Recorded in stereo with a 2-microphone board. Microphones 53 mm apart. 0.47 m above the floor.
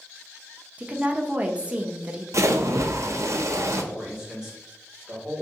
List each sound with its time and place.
0.8 s a woman speaking: 25° right (ahead or behind), 0.7 m
2.3 s a splash: 70° right (ahead or behind), 0.6 m
3.9 s a man speaking: 15° right (ahead or behind), 1.9 m